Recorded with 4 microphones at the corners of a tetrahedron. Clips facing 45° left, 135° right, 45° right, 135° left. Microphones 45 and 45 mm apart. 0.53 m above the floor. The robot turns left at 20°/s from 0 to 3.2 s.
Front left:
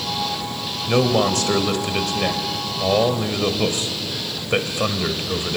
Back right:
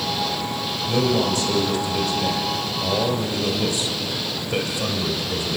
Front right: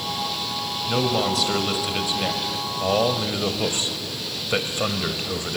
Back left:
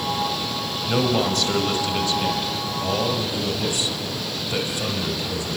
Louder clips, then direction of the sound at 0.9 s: Front left 3 dB, back left 1 dB; 50° left.